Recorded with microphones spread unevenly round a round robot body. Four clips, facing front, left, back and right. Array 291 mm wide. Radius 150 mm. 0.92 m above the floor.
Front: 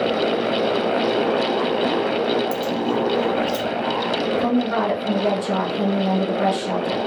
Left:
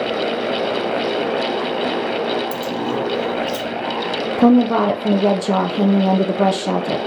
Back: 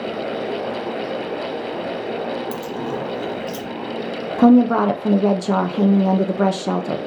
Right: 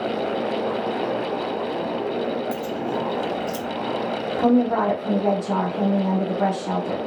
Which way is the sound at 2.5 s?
130° left.